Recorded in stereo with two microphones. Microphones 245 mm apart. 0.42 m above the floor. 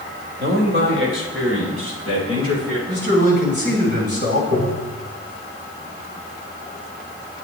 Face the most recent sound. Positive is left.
turn(degrees=-80)